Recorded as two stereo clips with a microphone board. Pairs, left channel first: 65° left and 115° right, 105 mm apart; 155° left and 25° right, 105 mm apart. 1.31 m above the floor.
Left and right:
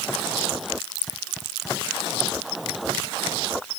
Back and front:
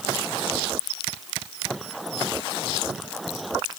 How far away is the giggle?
I don't hear a giggle.